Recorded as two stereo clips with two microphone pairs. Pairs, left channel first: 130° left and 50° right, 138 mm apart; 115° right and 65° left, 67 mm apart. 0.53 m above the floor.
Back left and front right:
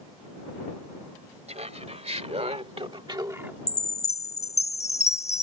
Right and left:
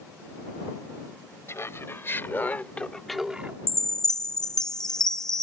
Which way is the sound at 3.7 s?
160° left.